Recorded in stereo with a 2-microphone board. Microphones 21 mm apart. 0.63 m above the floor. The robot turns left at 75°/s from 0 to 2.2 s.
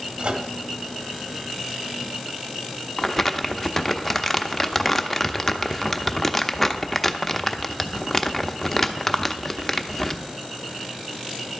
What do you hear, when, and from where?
0.2 s a microwave: 55° right (ahead or behind), 1.1 m; by 0.5 s 70° right (ahead or behind), 1.1 m
3.0 s crumpling: 10° left (ahead or behind), 0.6 m